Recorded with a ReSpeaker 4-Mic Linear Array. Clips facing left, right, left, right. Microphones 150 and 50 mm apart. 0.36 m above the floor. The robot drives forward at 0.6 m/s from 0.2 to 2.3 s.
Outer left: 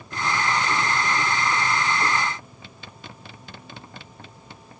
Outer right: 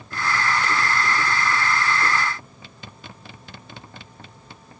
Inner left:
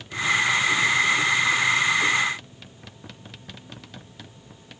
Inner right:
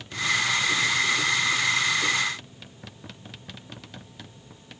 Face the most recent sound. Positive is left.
No sound to turn to.